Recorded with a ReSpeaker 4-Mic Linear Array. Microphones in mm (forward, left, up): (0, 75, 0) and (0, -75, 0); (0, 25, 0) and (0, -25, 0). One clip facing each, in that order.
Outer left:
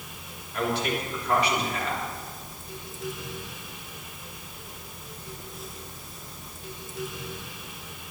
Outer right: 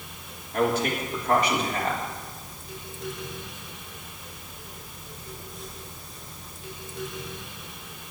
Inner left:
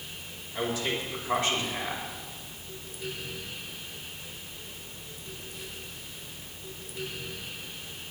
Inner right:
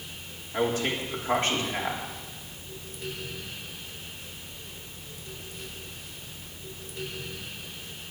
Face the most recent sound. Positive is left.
turn(degrees=-50)  # may be behind; listen again after turning